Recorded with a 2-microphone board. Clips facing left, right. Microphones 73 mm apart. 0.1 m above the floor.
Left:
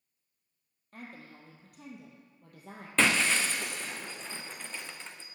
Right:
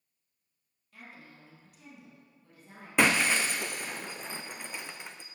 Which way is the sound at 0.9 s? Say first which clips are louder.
Left 4 dB; 45° left (ahead or behind).